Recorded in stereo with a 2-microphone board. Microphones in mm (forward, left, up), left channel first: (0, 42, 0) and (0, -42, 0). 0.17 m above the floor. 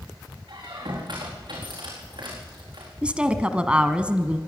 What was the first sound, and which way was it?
A squeak, 70° right (ahead or behind).